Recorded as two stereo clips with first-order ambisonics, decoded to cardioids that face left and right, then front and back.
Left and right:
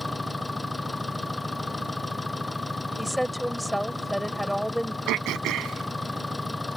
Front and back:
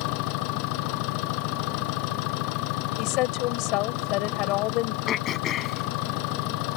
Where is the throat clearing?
50° right.